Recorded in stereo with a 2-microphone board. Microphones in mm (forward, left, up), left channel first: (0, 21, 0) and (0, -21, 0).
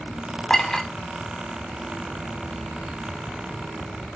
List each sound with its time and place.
0.5 s a clink: 20° left (ahead or behind), 0.6 m